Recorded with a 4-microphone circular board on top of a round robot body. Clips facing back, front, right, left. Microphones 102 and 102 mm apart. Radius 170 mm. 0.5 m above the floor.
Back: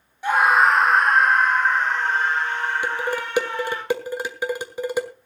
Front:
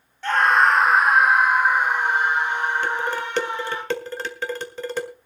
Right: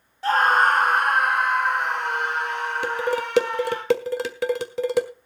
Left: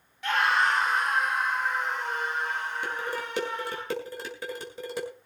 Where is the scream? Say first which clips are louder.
Back 1 dB, right 6 dB; 110° right, 0.9 m; by 3.8 s 70° right, 3 m.